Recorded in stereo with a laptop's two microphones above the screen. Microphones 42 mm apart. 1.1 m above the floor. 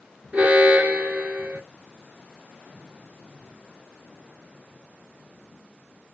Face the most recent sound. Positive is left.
turn(degrees=-35)  # may be behind; listen again after turning